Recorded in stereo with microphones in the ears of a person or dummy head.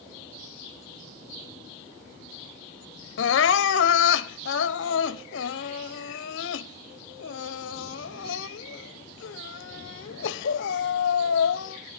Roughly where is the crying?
Left.